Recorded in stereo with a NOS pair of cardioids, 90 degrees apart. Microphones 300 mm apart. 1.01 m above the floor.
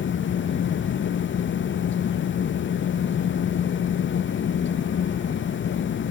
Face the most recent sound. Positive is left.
turn(degrees=40)